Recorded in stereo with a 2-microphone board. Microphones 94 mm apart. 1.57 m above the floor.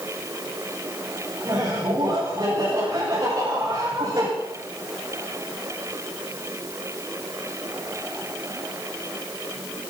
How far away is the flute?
I don't hear a flute.